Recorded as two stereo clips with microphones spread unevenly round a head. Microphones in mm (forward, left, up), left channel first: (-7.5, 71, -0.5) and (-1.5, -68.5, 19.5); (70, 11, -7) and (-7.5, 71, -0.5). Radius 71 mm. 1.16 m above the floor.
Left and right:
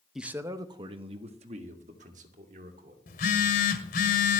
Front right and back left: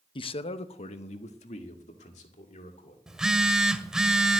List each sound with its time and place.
0.1 s a man speaking: straight ahead, 0.7 m; by 3.0 s 50° right, 3 m
3.1 s a phone buzzing: 60° left, 1.7 m